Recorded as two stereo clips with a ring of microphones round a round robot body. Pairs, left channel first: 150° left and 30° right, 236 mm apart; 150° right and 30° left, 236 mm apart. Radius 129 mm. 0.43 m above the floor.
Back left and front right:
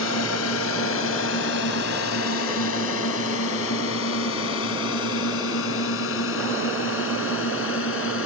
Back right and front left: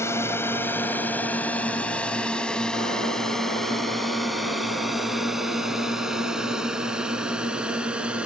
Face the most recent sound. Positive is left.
turn(degrees=115)